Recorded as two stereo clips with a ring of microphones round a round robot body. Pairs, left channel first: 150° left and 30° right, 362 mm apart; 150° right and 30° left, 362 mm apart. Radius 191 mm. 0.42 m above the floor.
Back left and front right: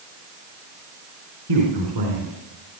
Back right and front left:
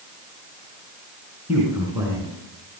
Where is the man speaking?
55° right, 5 m; by 2.8 s 45° right, 5 m.